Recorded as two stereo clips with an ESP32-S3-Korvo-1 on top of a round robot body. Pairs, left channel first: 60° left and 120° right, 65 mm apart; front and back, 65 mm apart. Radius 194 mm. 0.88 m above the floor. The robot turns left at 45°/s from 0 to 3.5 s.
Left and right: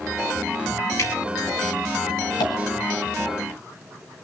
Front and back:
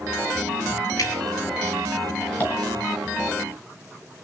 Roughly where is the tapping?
Ahead left.